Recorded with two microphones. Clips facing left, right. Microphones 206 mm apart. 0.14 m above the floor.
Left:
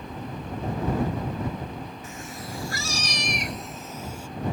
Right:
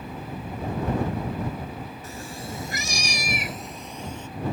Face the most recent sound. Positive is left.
turn(degrees=10)  # may be behind; listen again after turning